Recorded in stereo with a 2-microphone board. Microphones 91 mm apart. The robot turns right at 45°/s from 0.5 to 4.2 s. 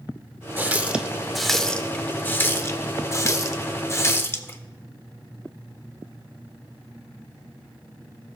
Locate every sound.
0.6 s a running tap: 20° right (ahead or behind), 0.6 m; by 4.6 s 25° left (ahead or behind), 0.6 m